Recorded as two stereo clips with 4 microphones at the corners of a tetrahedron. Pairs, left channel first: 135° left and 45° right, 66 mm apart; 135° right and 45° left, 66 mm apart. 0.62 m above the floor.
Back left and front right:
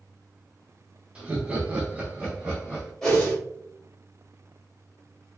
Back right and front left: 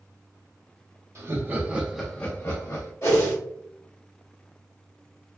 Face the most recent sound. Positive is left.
turn(degrees=-145)